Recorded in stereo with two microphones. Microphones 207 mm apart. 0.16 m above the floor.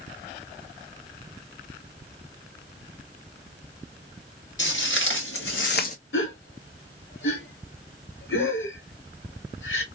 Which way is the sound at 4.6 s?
65° left (ahead or behind).